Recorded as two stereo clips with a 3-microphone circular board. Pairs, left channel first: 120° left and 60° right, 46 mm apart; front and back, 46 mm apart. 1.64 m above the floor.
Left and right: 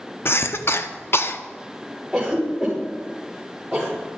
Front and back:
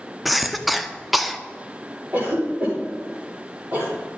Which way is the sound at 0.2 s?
90° left.